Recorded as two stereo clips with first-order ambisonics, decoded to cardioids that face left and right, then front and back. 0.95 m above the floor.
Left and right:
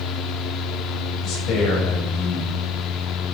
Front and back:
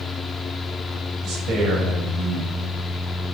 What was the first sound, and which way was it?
A man speaking, 135° left.